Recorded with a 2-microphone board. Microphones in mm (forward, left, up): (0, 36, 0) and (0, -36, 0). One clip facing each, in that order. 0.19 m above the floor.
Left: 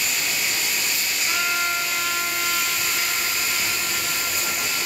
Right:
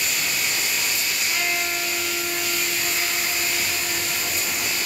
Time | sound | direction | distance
1.3 | a trumpet | 60° left (ahead or behind) | 3 m